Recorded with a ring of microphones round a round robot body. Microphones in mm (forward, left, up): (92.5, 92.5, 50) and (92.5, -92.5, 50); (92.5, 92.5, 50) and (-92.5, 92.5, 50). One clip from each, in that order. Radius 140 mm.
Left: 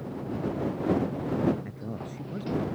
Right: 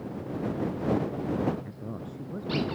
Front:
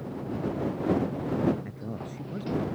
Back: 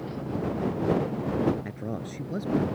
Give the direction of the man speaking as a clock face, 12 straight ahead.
7 o'clock.